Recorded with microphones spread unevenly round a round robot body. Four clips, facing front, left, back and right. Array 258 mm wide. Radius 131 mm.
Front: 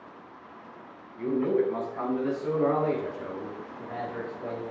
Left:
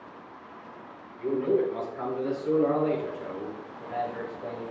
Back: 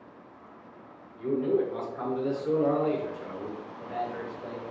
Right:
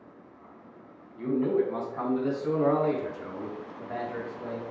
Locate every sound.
1.2 s a man speaking: 45° right, 3.5 m; by 4.6 s 70° right, 4 m